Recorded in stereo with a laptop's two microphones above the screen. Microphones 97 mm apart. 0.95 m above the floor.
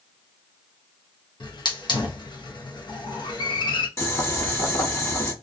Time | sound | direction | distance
1.4 | a hiss | 50° left (ahead or behind) | 0.6 m
4.0 | boiling | 30° left (ahead or behind) | 1.0 m